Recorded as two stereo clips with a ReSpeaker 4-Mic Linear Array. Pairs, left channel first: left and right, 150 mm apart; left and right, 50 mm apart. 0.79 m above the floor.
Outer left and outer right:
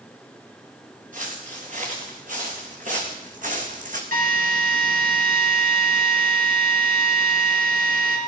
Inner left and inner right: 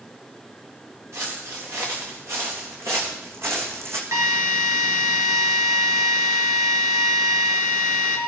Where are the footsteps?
60° right (ahead or behind), 4.5 m; by 4.0 s 55° right (ahead or behind), 2.5 m.